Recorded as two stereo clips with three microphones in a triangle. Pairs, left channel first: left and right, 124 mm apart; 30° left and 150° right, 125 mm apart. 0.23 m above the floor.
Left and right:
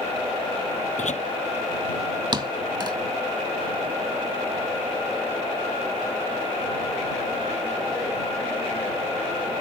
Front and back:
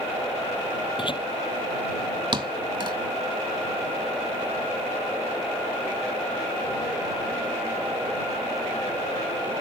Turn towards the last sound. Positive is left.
turn(degrees=-125)